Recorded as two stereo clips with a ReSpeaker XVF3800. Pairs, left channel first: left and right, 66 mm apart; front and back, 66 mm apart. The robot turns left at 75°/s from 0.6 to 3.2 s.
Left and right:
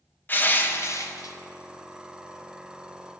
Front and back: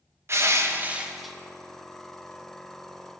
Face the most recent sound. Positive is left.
turn(degrees=-55)